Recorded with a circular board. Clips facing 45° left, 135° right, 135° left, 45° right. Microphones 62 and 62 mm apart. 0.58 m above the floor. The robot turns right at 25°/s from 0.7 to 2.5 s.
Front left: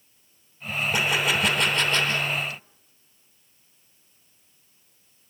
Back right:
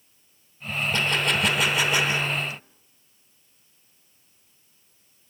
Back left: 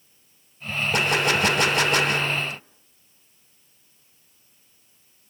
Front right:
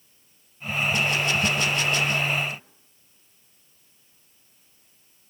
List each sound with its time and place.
0.9 s a gunshot: 120° left, 1.1 m; by 2.6 s 160° left, 1.1 m